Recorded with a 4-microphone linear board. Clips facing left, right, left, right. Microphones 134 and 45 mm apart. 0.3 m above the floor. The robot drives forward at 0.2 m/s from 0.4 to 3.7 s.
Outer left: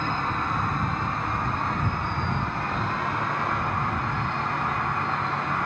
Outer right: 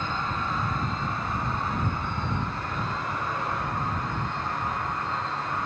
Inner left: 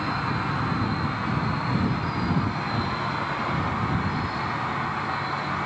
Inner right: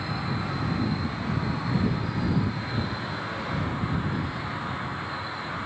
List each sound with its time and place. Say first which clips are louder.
0.0 s an insect: outer left 3 dB, inner left 4 dB; 50° left (ahead or behind), 1.8 m; by 5.7 s 65° left (ahead or behind), 1.5 m